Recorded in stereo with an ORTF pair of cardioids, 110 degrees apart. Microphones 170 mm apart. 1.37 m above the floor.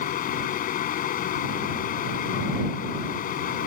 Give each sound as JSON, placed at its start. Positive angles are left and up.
{"t": 0.0, "sound": "a fan", "azimuth_deg": 60}